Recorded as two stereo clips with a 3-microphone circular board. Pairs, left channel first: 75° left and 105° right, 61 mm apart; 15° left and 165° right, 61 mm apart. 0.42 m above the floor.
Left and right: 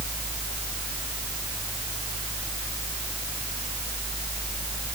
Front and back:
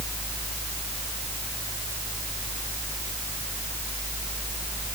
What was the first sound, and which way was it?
Only background noise.